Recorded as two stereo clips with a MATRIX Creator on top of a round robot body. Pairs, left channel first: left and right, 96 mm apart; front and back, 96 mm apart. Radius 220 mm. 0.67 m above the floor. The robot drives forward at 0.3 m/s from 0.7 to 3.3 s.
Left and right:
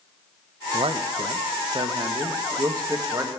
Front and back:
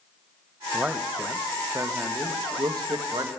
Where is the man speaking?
100° right, 0.8 m; by 3.3 s 145° right, 1.2 m.